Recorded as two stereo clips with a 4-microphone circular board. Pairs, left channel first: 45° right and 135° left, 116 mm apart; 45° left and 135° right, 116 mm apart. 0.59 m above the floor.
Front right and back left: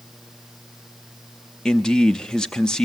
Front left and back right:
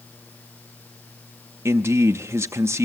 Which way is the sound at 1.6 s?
120° right.